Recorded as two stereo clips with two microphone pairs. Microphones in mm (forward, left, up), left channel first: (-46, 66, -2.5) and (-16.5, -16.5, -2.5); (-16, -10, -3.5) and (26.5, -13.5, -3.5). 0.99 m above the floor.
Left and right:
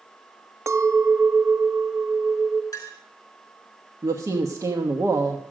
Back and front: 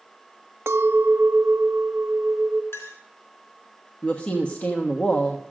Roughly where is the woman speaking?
Behind right.